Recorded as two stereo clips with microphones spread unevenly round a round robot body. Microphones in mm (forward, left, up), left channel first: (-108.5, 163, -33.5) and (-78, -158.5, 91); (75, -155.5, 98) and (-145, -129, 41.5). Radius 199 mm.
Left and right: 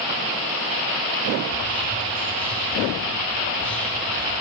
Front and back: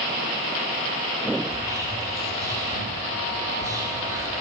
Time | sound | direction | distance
1.5 | whispering | 140° left | 1.0 m